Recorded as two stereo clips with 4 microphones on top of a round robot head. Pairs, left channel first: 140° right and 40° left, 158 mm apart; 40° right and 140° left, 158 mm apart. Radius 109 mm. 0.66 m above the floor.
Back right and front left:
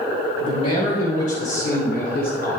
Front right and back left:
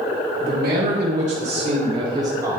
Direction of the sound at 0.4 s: 170° left.